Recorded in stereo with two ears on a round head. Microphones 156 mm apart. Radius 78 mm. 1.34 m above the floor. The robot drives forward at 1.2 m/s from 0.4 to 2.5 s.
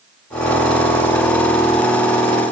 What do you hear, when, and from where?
Only background noise.